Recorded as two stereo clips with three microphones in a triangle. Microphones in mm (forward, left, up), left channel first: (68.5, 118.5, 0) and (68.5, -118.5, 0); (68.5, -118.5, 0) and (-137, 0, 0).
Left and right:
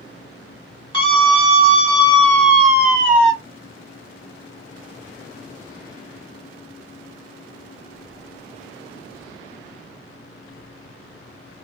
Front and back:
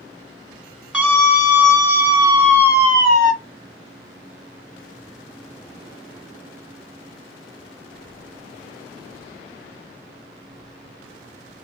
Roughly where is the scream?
Ahead left.